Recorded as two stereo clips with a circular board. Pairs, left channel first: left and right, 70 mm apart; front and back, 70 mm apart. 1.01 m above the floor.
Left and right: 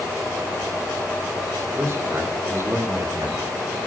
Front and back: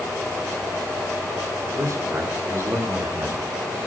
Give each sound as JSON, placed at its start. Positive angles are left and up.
{"t": 1.7, "sound": "a man speaking", "azimuth_deg": -140, "distance_m": 2.5}